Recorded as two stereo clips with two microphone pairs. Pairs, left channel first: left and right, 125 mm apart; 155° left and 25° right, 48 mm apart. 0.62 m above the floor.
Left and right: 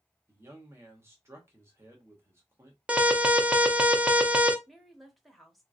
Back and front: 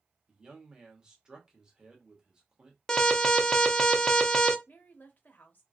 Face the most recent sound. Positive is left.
turn(degrees=180)